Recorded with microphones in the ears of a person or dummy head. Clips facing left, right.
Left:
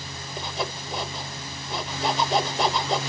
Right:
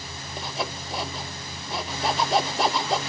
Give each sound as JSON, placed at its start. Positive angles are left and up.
{"t": 0.4, "sound": "sawing", "side_deg": 0, "distance_m": 0.7}